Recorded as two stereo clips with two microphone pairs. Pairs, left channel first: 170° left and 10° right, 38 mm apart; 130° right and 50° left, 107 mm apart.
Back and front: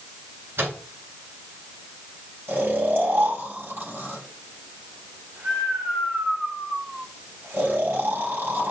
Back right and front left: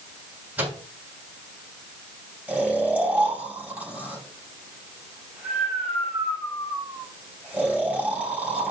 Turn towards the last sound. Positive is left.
turn(degrees=-25)